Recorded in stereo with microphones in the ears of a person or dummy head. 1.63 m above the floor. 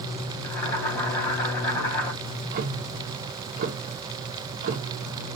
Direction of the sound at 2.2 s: 50° right (ahead or behind).